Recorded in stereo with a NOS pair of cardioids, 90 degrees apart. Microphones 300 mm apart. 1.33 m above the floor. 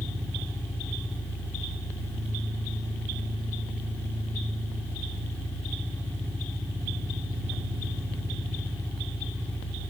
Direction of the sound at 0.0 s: 5° left.